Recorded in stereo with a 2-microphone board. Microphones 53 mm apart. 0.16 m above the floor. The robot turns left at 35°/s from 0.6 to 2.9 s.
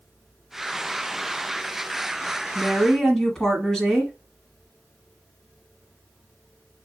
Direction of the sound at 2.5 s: 5° left (ahead or behind).